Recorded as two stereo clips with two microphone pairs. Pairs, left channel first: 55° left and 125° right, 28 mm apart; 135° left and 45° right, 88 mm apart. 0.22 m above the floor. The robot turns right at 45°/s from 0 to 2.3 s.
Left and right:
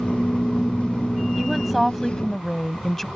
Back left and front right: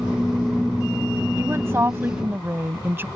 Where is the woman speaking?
50° right; by 3.1 s 10° right.